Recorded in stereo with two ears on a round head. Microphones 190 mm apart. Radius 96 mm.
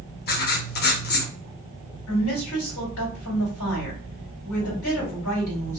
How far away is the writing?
About 0.6 m.